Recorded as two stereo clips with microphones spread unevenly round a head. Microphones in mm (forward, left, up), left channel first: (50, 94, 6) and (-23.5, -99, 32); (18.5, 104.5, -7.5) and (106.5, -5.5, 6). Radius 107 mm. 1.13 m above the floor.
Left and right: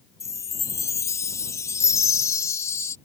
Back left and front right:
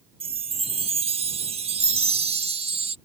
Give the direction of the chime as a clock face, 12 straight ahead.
12 o'clock.